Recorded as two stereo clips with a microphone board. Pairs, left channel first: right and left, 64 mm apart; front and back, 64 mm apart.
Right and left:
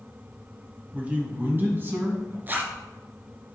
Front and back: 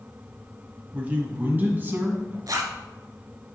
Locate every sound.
0.9 s a man speaking: 135° left, 1.6 m; by 2.4 s 130° left, 2.5 m
2.5 s a zipper: 150° left, 1.2 m